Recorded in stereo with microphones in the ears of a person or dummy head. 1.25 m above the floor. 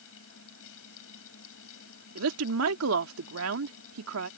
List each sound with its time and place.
0.0 s a fan: 80° left
2.1 s a woman speaking: 90° right